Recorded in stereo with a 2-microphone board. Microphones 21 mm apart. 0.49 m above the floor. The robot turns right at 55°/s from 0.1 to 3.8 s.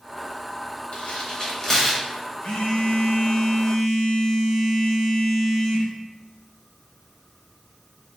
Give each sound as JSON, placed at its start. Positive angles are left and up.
{"t": 0.9, "sound": "tearing paper", "side_deg": 60, "distance_m": 1.0}
{"t": 2.4, "sound": "a phone buzzing", "azimuth_deg": 80, "distance_m": 1.2}